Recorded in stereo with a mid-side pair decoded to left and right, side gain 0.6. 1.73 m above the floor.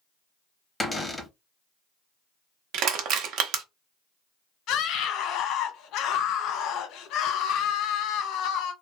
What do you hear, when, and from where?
0.8 s a cupboard door: 10° left, 0.7 m
2.7 s crushing: 65° right, 0.7 m
4.7 s a scream: 65° left, 0.9 m